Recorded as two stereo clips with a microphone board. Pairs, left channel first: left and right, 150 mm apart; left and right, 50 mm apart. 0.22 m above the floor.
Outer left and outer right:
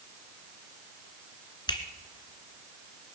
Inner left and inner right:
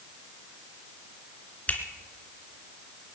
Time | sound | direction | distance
1.7 | a finger snap | 30° left (ahead or behind) | 2 m